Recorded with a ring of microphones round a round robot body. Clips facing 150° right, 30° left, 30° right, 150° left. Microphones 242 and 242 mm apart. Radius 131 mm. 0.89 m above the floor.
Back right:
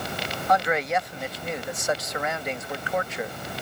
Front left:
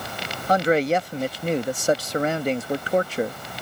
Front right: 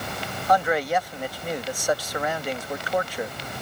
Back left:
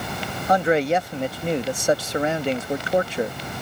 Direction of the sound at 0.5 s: 85° left.